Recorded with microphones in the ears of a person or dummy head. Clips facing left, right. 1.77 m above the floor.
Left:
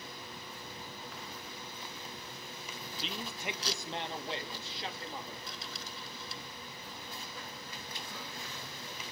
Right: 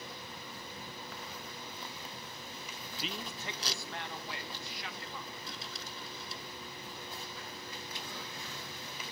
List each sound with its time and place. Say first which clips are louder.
3.0 s a man speaking: left 1 dB; 10° right (ahead or behind), 0.7 m; by 5.7 s 25° left (ahead or behind), 4 m